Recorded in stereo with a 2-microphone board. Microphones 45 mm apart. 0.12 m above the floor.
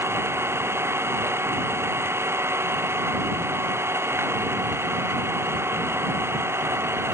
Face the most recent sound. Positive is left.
turn(degrees=-65)  # may be behind; listen again after turning